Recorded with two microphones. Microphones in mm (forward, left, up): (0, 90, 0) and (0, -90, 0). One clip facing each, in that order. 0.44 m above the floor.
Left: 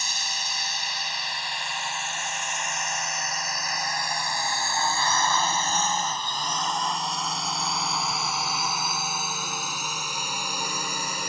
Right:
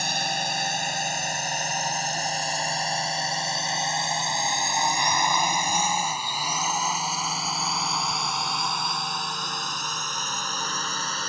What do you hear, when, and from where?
0.0 s a drone: 55° right (ahead or behind); by 11.3 s 15° left (ahead or behind)